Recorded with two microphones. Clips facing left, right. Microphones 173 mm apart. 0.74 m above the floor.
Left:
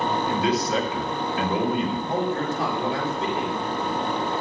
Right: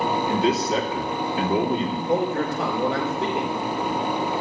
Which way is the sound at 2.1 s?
75° right (ahead or behind).